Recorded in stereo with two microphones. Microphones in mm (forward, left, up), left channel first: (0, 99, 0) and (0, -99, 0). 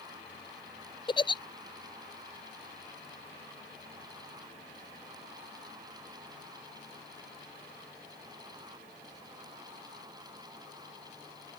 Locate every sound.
1.1 s a giggle: 25° left (ahead or behind)